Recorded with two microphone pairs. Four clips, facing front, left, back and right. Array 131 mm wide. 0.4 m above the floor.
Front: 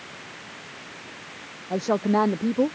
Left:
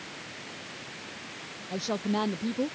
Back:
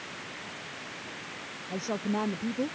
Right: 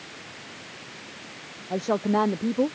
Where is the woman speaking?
35° right.